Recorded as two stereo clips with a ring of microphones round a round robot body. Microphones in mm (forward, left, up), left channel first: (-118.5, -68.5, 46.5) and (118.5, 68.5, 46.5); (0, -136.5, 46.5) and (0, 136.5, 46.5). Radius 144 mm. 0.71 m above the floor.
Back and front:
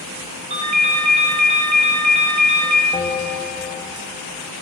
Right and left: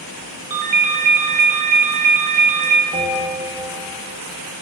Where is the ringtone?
100° left, 0.9 m.